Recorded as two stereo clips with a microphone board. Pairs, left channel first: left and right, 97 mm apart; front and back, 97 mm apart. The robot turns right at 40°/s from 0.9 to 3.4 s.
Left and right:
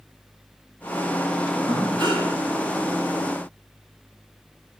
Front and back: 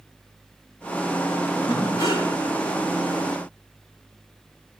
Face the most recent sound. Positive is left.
turn(degrees=5)